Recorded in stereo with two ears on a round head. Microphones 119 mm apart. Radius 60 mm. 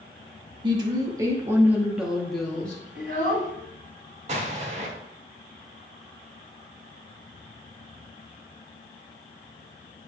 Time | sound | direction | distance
0.6 | a woman speaking | 30° right (ahead or behind) | 1.3 m
3.0 | a child speaking | 75° right (ahead or behind) | 4 m
4.3 | an explosion | 55° right (ahead or behind) | 1.5 m